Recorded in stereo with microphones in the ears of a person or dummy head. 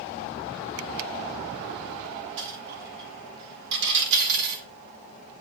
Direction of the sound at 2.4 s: 65° right (ahead or behind).